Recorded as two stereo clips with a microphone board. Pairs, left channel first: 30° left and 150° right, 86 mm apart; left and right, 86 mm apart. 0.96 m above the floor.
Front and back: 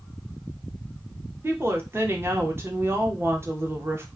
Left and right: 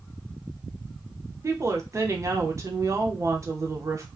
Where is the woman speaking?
110° right, 0.6 m.